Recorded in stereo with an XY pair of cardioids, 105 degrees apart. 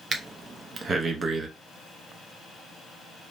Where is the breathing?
35° right, 0.6 m.